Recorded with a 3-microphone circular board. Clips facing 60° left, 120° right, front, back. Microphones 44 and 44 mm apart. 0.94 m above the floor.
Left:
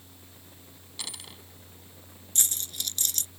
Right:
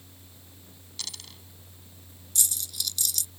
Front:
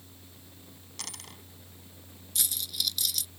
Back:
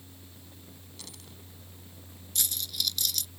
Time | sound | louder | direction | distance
1.0 | a dropped coin | even, front 7 dB | 10° right | ?
2.4 | a dropped coin | even, even | 90° left | ?